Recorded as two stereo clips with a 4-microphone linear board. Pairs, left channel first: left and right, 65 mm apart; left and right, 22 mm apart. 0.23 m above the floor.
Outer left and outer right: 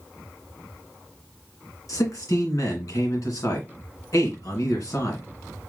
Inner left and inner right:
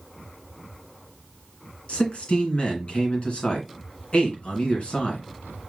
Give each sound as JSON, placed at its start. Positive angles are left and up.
{"t": 1.9, "sound": "a man speaking", "side_deg": 60, "distance_m": 2.0}